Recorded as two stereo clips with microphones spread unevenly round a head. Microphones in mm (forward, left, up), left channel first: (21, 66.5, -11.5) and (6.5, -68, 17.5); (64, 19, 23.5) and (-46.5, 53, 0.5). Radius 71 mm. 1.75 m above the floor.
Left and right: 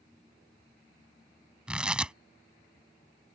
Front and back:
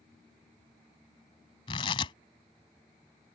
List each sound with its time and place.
1.7 s tearing paper: 25° right